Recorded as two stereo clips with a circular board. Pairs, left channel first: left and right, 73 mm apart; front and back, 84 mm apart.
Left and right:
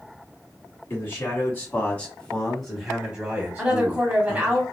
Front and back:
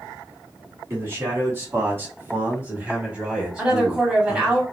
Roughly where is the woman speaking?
Behind right.